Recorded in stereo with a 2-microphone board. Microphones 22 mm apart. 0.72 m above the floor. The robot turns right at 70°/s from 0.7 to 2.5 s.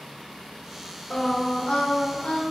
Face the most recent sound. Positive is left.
turn(degrees=130)